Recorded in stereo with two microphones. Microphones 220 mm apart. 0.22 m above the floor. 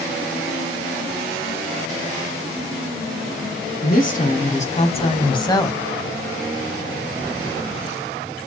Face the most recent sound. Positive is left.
turn(degrees=10)  # may be behind; listen again after turning